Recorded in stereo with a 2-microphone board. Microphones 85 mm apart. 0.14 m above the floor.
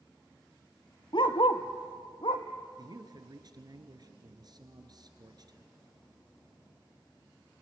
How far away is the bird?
No bird in this recording.